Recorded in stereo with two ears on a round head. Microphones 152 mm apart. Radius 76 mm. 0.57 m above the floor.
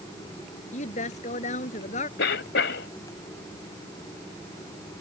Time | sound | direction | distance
0.7 | a woman speaking | 45° left (ahead or behind) | ?
2.2 | a cough | 70° left (ahead or behind) | ?